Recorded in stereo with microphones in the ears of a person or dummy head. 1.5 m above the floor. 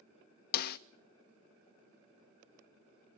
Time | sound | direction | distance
0.5 | a snare drum | 50° left (ahead or behind) | 0.6 m